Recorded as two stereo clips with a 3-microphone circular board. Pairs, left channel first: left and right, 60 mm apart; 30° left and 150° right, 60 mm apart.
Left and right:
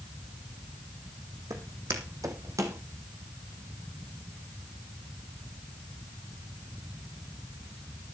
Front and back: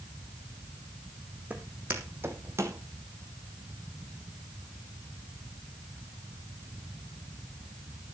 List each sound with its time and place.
1.5 s footsteps: 90° right, 2.5 m; by 2.8 s 115° right, 2.5 m